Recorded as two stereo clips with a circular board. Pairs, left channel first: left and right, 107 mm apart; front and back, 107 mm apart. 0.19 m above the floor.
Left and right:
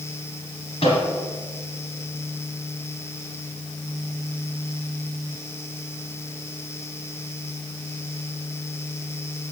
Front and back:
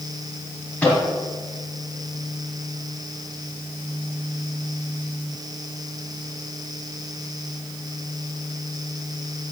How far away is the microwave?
About 3 m.